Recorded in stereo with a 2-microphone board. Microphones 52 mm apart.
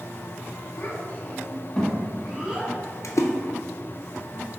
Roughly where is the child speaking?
Left.